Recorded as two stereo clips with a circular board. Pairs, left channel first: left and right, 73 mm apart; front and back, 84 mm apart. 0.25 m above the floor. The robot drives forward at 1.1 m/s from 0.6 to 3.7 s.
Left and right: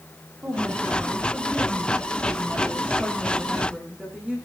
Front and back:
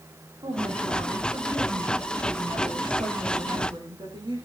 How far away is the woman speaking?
About 9 m.